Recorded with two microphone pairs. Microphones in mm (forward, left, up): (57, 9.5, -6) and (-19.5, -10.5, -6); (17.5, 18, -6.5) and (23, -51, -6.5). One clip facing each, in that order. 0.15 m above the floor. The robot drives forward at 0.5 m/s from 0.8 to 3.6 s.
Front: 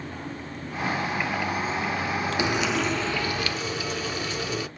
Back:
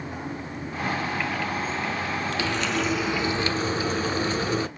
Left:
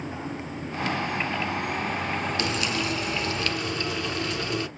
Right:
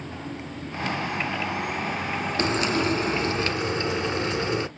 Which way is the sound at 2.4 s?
50° right.